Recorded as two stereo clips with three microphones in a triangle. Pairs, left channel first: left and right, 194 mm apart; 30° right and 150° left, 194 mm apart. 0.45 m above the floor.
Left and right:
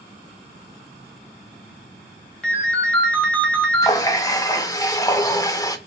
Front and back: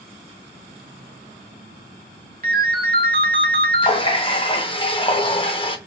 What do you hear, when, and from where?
2.4 s a ringtone: 170° left, 1.1 m
3.8 s a running tap: 20° left, 0.6 m